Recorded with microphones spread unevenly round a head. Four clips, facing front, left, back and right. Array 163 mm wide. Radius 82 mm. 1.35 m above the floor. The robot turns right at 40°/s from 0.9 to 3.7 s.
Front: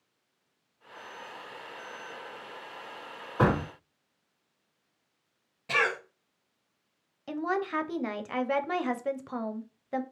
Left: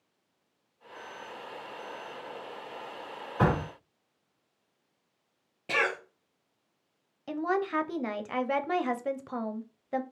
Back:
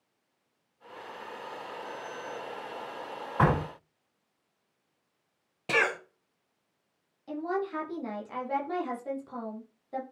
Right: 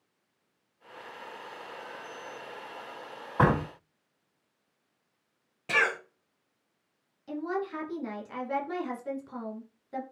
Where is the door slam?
95° right, 2 m; by 3.7 s 80° right, 2 m.